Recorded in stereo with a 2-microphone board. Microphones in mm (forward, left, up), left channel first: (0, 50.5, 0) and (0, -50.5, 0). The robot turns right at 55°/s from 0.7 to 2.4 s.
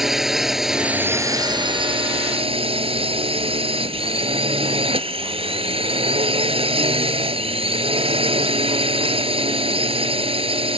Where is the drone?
175° right; by 10.8 s 85° right.